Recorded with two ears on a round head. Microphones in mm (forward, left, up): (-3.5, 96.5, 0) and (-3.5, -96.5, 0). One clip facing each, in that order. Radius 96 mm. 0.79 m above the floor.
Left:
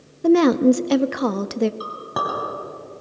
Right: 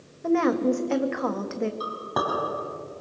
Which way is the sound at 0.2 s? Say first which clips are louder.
Left 8 dB; 50° left (ahead or behind).